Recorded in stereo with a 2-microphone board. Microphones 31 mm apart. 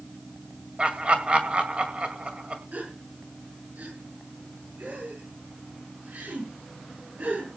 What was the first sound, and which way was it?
Laughter, 40° right (ahead or behind).